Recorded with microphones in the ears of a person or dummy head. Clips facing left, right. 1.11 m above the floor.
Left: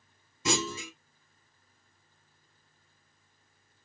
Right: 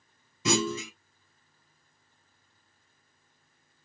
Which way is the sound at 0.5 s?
65° right (ahead or behind).